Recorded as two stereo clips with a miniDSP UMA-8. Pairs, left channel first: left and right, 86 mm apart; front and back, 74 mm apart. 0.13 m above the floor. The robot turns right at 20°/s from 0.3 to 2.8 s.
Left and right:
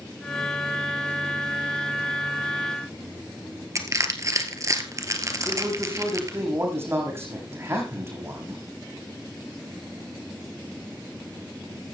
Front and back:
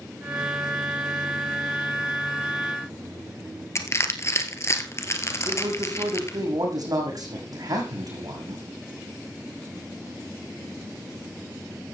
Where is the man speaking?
150° right, 6.5 m.